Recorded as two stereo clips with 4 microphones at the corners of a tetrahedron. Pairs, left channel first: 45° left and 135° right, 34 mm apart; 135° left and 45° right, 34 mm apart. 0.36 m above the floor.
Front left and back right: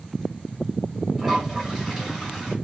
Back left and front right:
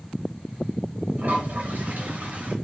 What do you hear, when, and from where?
1.2 s a toilet flushing: 55° right, 2.5 m